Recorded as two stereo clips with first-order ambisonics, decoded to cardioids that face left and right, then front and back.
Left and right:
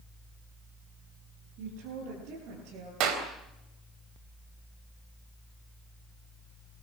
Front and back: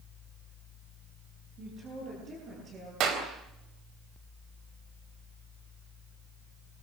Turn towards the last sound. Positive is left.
turn(degrees=-130)